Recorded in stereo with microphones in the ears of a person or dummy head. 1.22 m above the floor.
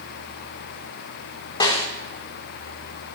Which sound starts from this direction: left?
A snare drum, at 1.6 s.